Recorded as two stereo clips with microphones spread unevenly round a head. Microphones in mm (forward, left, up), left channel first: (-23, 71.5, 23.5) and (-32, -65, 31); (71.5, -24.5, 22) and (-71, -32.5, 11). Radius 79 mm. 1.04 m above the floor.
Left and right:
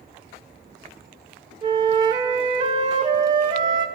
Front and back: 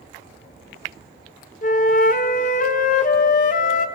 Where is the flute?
30° right, 0.6 m.